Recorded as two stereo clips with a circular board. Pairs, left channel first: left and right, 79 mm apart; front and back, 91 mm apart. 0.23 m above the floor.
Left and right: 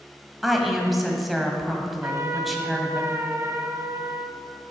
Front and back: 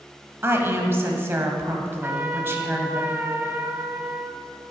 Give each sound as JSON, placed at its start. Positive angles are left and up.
{"t": 0.4, "sound": "a woman speaking", "azimuth_deg": -175, "distance_m": 1.1}
{"t": 2.0, "sound": "a trumpet", "azimuth_deg": -120, "distance_m": 0.6}